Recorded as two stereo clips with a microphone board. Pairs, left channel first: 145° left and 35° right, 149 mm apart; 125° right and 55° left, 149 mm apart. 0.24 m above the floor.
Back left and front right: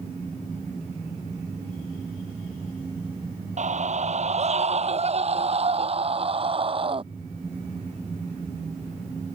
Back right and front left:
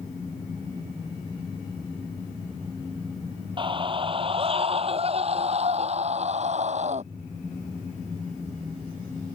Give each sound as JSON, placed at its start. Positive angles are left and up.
{"t": 3.6, "sound": "a scream", "azimuth_deg": 0}